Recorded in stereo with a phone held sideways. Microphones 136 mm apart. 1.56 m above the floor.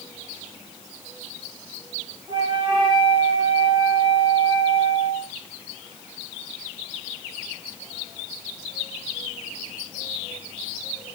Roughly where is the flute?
Right.